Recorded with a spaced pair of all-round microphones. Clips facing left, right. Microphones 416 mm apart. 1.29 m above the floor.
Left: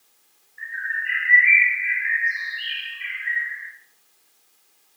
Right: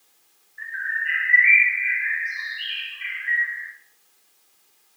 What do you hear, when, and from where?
0.6 s a bird: 45° right (ahead or behind), 1.7 m